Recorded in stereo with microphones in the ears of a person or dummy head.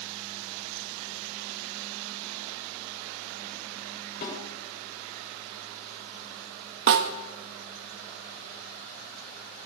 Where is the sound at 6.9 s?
65° right (ahead or behind), 1.6 m.